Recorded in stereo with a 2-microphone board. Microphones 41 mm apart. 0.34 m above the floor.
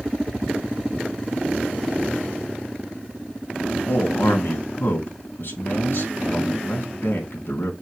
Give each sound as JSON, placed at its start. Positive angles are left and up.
{"t": 3.7, "sound": "a man speaking", "side_deg": 60, "distance_m": 3.0}